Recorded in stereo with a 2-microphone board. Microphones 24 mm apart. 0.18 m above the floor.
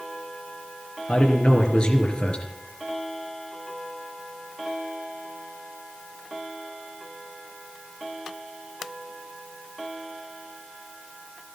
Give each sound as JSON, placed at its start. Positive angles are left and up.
{"t": 1.1, "sound": "a man speaking", "side_deg": 45, "distance_m": 3.0}